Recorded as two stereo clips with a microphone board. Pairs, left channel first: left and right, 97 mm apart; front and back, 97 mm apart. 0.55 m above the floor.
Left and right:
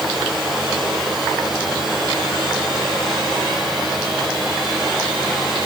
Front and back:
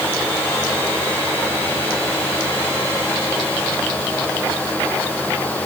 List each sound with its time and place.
Only background noise.